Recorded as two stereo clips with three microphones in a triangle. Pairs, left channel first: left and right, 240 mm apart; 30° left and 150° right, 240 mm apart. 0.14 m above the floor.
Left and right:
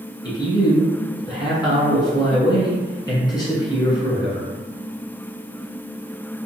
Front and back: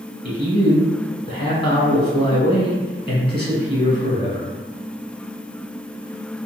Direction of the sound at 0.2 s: 45° left.